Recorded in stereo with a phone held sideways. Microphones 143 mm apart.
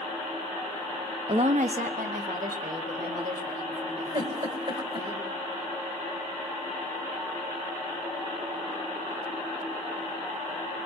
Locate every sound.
1.3 s a woman speaking: 45° right (ahead or behind), 0.5 m; by 5.1 s 85° right, 5.5 m
4.1 s a giggle: 50° right (ahead or behind), 1.6 m